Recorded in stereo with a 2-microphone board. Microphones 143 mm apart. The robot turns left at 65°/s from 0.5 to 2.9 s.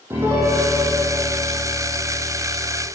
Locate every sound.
0.1 s a piano: 165° right, 5.5 m; by 2.9 s 40° left, 5.5 m